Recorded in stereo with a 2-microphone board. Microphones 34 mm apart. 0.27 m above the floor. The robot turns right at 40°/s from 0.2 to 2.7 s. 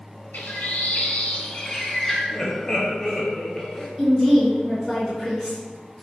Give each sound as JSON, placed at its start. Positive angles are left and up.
{"t": 0.3, "sound": "a bird", "azimuth_deg": 105, "distance_m": 0.8}
{"t": 2.3, "sound": "laughter", "side_deg": 15, "distance_m": 0.9}
{"t": 4.0, "sound": "a woman speaking", "side_deg": -5, "distance_m": 1.7}